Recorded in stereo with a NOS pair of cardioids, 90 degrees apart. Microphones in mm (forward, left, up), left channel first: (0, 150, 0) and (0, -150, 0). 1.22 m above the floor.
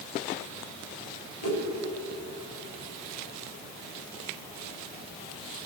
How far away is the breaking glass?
No breaking glass in this recording.